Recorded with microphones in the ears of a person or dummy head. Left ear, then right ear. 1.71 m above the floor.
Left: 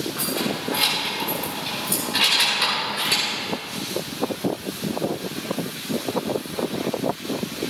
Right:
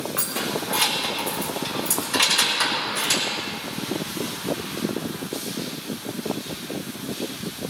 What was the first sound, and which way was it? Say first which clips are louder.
Keys jangling: right 1 dB; 30° right (ahead or behind).